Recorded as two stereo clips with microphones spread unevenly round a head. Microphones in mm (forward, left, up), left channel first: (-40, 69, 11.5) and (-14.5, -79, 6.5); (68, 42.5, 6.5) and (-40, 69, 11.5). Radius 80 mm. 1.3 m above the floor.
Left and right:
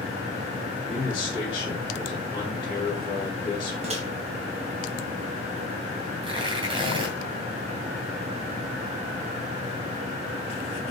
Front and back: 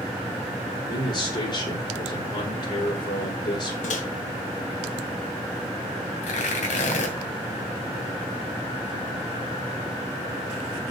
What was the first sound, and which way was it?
A man speaking, 30° left.